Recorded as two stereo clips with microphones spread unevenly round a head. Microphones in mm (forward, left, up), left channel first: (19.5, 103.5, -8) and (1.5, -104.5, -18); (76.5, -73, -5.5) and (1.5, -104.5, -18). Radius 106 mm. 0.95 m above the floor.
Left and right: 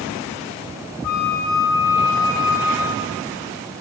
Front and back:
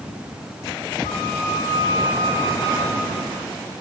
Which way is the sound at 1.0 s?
75° left.